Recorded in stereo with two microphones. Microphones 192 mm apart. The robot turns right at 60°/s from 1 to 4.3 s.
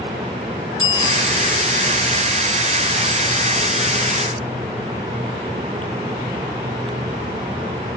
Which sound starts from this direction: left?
A bicycle bell, at 0.8 s.